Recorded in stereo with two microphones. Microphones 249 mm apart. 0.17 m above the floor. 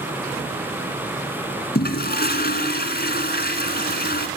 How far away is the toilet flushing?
About 1.8 m.